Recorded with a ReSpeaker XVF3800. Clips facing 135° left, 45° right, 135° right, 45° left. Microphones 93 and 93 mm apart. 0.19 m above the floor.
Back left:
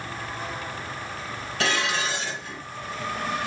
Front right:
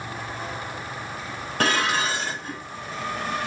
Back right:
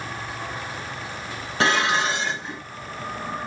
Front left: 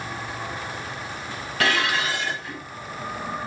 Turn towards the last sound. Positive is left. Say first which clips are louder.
# front right 3 dB, back right 3 dB
turn(degrees=-80)